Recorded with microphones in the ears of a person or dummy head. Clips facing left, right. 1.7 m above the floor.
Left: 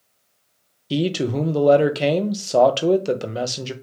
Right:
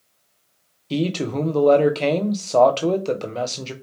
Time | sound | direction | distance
0.9 | a man speaking | 10° left (ahead or behind) | 0.8 m